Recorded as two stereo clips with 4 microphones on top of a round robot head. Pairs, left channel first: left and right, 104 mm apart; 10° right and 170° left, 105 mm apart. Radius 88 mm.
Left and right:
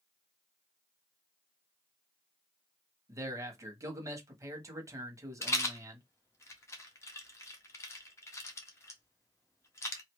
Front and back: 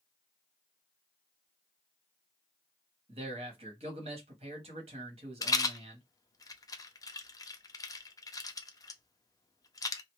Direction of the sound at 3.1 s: 150° right.